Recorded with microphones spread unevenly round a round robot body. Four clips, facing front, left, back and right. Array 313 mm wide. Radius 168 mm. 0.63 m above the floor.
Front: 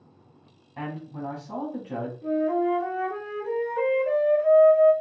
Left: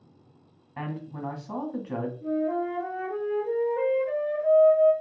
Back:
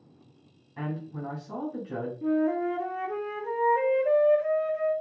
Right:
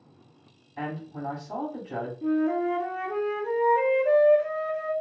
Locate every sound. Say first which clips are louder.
0.8 s a man speaking: right 1 dB, front 1 dB; 85° left, 1.3 m
2.2 s a flute: right 3 dB, front 2 dB; 135° right, 0.7 m